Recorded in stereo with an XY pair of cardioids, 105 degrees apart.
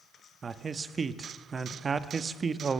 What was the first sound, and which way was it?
A man speaking, 35° right.